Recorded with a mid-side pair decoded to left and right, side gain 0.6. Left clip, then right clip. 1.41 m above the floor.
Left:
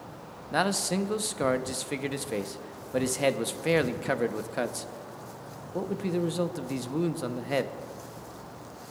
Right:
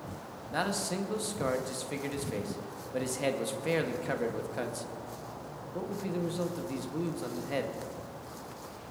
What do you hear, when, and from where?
0.5 s a man speaking: 35° left, 0.7 m